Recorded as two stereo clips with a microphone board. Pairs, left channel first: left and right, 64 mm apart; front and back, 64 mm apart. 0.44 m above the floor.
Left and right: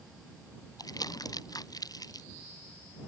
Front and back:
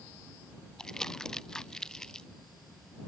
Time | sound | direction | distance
0.8 | crumpling | 80° left | ?